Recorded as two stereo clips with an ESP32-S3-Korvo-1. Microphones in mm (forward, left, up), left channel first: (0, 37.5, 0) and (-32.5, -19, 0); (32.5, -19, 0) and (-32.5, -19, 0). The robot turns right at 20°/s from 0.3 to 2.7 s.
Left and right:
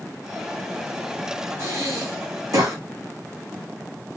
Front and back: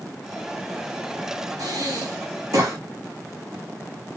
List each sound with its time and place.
1.6 s breathing: 170° right, 4 m; by 2.8 s 150° right, 4 m